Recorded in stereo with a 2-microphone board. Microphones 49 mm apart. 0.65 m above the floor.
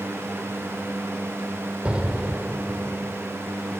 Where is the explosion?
25° right (ahead or behind), 1.1 m.